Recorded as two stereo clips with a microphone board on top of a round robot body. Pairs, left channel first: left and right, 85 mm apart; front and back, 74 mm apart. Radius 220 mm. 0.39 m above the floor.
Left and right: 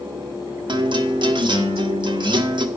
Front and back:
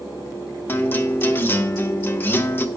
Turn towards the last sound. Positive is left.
turn(degrees=-65)